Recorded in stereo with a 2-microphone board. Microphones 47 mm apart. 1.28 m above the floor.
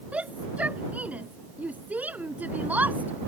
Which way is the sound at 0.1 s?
30° right (ahead or behind).